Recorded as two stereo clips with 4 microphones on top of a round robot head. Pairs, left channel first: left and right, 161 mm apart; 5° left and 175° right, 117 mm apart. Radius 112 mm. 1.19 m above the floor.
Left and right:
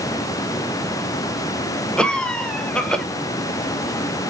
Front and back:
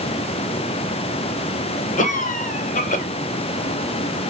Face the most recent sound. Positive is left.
turn(degrees=5)